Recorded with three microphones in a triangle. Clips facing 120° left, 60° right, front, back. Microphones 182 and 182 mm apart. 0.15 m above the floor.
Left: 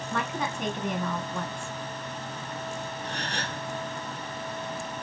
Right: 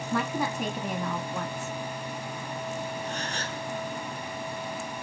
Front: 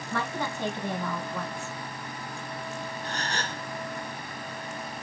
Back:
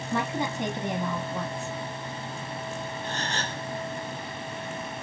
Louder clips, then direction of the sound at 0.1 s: Right 3 dB, back 3 dB; 135° right.